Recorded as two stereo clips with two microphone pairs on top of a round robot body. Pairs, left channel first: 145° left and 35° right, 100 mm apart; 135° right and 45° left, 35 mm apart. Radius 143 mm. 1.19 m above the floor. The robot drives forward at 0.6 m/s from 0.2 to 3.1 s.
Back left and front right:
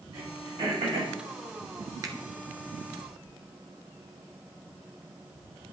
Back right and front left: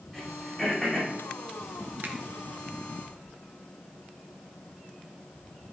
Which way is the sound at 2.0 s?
20° left.